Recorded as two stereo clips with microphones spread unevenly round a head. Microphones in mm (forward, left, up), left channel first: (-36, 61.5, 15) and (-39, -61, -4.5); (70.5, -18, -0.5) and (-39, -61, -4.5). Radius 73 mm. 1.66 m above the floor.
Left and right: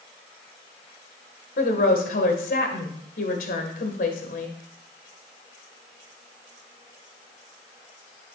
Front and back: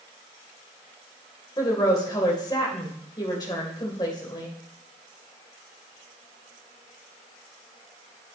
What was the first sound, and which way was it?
A woman speaking, 85° left.